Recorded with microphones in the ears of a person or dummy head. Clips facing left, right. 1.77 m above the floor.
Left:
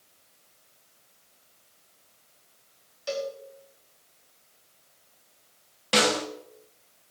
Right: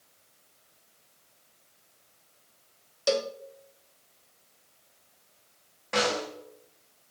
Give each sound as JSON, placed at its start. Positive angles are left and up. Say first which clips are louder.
{"t": 3.1, "sound": "a cowbell", "louder": "right 4 dB", "side_deg": -60, "distance_m": 0.8}
{"t": 5.9, "sound": "a snare drum", "louder": "left 3 dB", "side_deg": 45, "distance_m": 2.5}